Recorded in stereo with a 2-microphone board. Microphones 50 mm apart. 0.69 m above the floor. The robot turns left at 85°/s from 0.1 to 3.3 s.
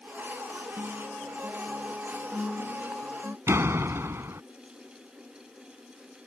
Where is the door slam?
60° right (ahead or behind).